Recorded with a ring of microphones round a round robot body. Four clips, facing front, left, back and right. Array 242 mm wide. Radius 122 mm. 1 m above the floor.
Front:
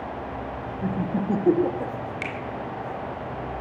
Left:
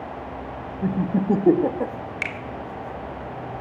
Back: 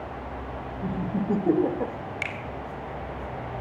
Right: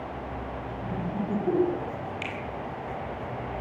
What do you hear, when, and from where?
0.8 s laughter: 70° left, 1.5 m; by 1.9 s 100° left, 1.2 m
2.2 s a finger snap: 90° left, 2.5 m